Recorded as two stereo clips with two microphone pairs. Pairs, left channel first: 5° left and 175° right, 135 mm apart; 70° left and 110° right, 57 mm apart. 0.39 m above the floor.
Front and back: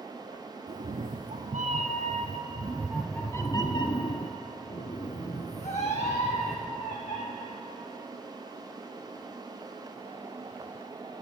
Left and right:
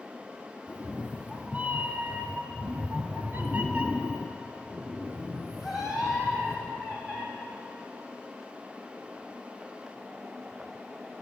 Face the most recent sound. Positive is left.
turn(degrees=-25)